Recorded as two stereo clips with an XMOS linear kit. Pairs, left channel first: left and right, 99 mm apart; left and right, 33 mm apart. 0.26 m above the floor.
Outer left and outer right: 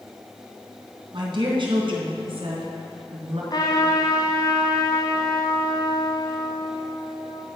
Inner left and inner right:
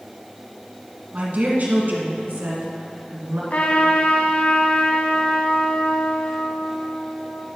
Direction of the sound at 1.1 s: 55° right (ahead or behind).